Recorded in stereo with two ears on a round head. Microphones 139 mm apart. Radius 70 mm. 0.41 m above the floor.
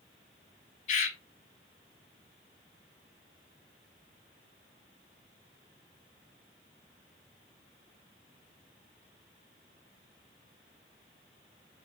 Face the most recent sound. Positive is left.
turn(degrees=45)  # may be behind; listen again after turning